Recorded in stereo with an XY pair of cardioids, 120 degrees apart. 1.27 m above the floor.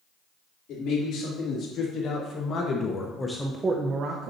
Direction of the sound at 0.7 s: 65° left.